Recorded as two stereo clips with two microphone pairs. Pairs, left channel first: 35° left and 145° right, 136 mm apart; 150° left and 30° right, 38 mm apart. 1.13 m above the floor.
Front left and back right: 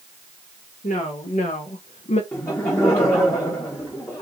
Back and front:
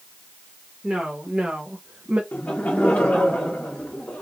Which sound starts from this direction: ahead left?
A woman speaking, at 0.8 s.